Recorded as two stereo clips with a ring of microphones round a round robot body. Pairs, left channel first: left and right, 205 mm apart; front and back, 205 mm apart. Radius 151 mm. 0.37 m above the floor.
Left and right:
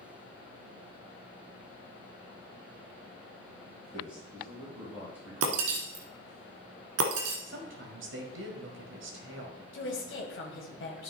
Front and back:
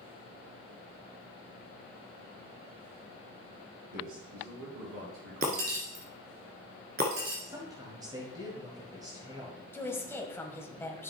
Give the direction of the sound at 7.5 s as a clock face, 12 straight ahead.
4 o'clock.